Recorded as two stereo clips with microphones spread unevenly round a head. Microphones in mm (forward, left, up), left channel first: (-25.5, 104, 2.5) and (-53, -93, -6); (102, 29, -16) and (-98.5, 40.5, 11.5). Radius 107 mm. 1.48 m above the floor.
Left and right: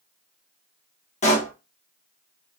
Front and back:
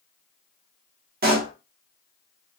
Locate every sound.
1.2 s a pop: 135° left, 1.2 m